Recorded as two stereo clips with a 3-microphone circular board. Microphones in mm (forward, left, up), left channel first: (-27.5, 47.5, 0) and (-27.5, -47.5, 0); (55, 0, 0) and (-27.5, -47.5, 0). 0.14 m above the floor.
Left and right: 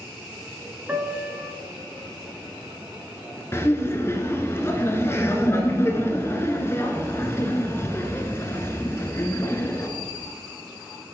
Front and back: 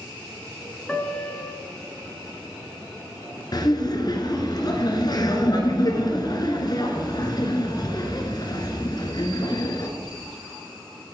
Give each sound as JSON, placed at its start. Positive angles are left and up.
{"t": 0.9, "sound": "a piano", "azimuth_deg": -40, "distance_m": 0.9}
{"t": 3.5, "sound": "laughter", "azimuth_deg": 40, "distance_m": 1.5}